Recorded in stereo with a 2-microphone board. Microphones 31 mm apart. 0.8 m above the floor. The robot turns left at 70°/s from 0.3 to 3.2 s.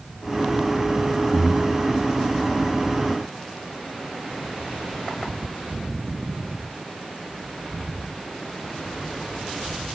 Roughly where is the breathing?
Right.